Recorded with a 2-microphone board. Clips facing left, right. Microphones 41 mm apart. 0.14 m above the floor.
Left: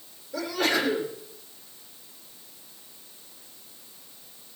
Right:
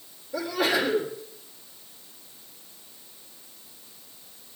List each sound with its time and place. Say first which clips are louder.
0.3 s a sneeze: right 1 dB; 5° right (ahead or behind), 8 m